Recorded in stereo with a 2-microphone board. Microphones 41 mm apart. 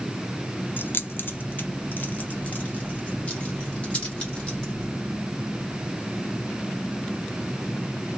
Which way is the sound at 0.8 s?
50° left (ahead or behind).